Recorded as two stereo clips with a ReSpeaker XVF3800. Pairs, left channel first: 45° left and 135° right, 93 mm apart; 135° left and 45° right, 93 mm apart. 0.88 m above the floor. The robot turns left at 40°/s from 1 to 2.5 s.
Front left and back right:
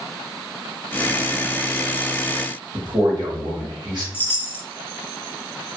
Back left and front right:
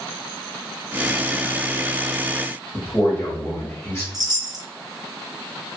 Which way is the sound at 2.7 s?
165° right.